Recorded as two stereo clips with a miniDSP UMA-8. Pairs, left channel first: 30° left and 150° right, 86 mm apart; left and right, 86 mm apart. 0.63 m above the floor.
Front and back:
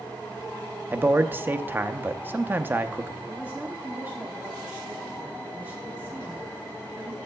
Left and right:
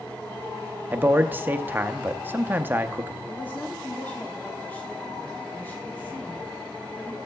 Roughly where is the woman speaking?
Behind left.